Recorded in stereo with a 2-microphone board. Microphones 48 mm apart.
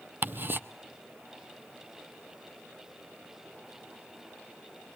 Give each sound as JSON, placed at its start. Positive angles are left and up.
{"t": 0.2, "sound": "ticking", "side_deg": -45, "distance_m": 0.6}